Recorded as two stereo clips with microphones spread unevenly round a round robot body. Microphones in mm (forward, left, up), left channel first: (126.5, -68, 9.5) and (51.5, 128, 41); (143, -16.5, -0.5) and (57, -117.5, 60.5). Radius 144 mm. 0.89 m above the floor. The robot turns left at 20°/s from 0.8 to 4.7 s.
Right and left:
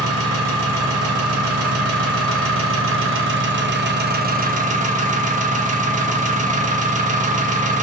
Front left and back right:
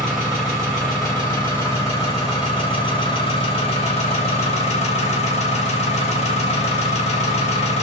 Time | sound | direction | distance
0.0 | an engine running | 130° left | 0.7 m